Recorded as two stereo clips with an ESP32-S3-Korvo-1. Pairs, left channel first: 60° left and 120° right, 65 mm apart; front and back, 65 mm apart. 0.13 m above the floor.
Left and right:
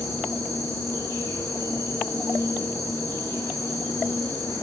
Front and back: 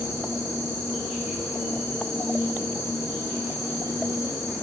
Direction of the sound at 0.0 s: 100° left.